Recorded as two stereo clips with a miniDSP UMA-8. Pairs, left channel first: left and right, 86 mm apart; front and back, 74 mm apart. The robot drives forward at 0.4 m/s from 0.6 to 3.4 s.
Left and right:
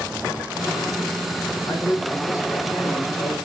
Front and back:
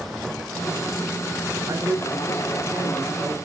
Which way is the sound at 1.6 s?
135° left.